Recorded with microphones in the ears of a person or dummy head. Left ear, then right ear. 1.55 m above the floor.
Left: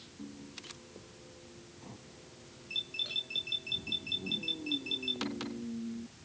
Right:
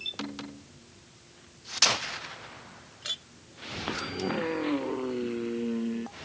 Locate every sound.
3.0 s a clink: 60° right (ahead or behind)